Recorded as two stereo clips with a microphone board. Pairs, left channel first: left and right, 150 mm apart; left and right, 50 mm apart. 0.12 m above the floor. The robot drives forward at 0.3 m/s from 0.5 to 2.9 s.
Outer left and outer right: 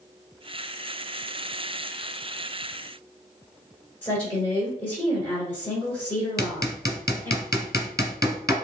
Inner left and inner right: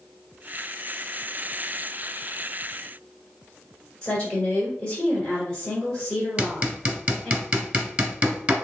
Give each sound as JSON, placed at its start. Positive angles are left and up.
{"t": 4.0, "sound": "a woman speaking", "side_deg": 15, "distance_m": 1.2}
{"t": 6.4, "sound": "hammering", "side_deg": -25, "distance_m": 0.7}